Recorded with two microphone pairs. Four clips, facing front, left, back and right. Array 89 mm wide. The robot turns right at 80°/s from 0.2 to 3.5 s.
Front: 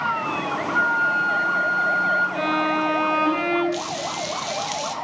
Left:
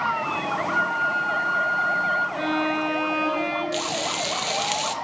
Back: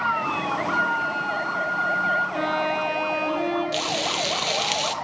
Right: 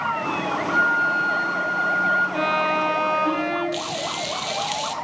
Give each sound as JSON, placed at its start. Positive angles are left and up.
{"t": 0.7, "sound": "a flute", "azimuth_deg": -150, "distance_m": 4.5}
{"t": 2.3, "sound": "a violin", "azimuth_deg": -95, "distance_m": 4.5}
{"t": 3.7, "sound": "frying", "azimuth_deg": 160, "distance_m": 0.5}